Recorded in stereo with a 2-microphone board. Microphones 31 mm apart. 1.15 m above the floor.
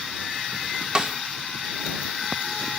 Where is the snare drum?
30° right (ahead or behind).